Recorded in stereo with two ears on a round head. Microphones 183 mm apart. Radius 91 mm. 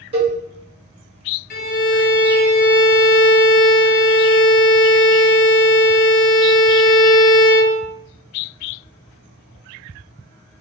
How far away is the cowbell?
About 1.3 m.